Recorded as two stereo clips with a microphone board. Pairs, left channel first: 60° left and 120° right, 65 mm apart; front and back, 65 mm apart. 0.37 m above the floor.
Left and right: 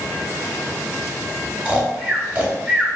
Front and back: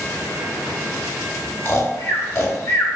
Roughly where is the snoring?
Ahead right.